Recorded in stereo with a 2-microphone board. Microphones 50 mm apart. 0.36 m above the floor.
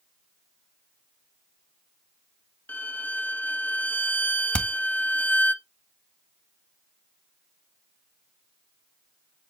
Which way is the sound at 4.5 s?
25° left (ahead or behind).